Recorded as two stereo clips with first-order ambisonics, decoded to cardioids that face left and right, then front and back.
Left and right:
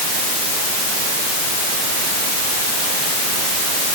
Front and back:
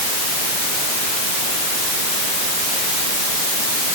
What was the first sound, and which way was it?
Only background noise.